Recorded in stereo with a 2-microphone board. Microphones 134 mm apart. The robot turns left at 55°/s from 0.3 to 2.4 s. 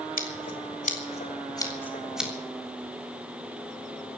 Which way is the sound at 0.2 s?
75° left (ahead or behind).